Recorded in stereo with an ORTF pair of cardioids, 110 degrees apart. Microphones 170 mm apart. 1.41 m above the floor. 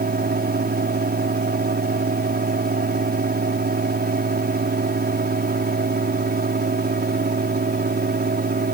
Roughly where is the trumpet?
No trumpet in this recording.